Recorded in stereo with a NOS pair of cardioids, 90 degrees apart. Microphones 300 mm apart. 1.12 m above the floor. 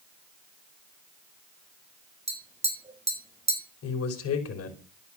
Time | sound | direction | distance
2.3 | tapping | 20° right | 4.5 m
3.8 | a man speaking | 55° left | 5 m